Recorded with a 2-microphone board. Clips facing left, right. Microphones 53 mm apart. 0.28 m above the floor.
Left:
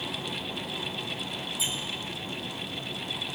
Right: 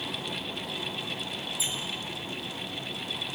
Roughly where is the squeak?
Left.